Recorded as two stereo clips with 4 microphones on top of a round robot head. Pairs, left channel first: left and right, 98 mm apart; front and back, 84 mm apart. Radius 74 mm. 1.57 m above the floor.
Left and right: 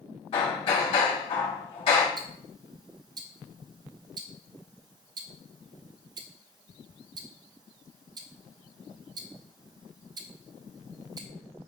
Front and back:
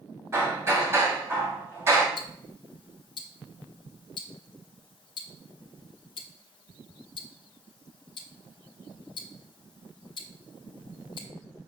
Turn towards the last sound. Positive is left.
turn(degrees=-35)